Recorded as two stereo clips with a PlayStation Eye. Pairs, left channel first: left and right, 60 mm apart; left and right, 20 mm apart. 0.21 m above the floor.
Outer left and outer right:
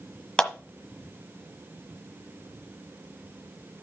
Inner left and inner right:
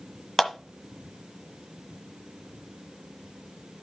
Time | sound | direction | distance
0.4 | a clap | 15° left (ahead or behind) | 1.2 m